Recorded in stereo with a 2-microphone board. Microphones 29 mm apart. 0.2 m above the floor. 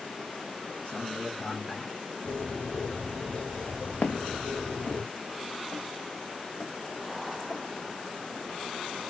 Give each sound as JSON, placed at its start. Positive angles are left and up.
{"t": 0.8, "sound": "a man speaking", "side_deg": 35, "distance_m": 2.5}
{"t": 2.2, "sound": "a bird", "side_deg": 40, "distance_m": 3.0}
{"t": 4.0, "sound": "footsteps", "side_deg": 75, "distance_m": 0.6}